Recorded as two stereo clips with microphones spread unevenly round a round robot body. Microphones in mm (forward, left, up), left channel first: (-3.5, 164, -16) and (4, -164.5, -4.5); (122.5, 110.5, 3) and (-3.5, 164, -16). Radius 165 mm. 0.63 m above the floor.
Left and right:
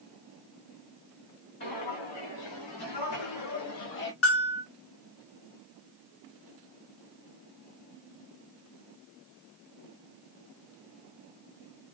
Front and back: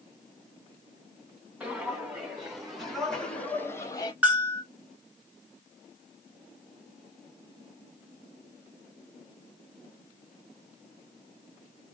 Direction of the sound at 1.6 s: 75° left.